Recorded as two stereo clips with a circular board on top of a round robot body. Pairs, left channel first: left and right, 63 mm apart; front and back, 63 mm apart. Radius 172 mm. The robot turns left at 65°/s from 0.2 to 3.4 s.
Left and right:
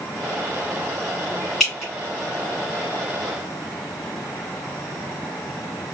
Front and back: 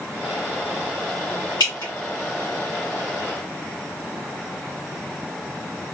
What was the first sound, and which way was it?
Dripping, 5° left.